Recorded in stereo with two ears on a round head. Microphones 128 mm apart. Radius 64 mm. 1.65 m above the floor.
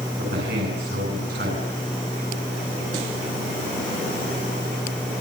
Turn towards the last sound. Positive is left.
turn(degrees=-80)